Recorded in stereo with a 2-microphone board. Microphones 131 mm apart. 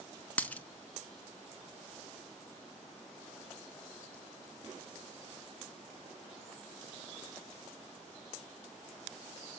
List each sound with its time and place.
0.4 s a dropped coin: 10° left (ahead or behind), 0.5 m